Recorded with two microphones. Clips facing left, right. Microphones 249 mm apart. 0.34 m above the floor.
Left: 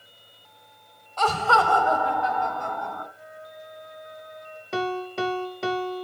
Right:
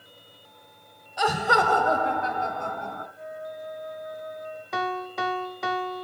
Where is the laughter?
10° right (ahead or behind), 1.0 m; by 3.0 s 25° right (ahead or behind), 2.5 m.